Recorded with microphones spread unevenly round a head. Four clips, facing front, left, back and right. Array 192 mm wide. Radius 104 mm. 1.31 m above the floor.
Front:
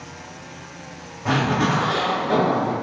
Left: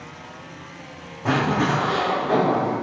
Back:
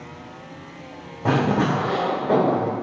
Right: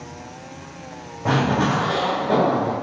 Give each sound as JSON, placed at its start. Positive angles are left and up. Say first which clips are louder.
{"t": 1.2, "sound": "a zipper", "louder": "right 1 dB, back 1 dB", "azimuth_deg": -170, "distance_m": 0.7}